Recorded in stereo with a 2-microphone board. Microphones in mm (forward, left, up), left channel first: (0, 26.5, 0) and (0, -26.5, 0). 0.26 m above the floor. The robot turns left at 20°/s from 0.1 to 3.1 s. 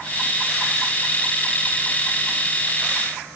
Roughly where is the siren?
No siren in this recording.